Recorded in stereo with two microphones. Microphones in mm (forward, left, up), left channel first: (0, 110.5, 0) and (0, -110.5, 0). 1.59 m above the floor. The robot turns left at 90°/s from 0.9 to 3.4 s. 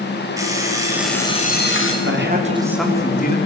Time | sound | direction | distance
0.4 | an alarm clock | 165° right | 4 m
2.0 | a man speaking | 110° right | 4 m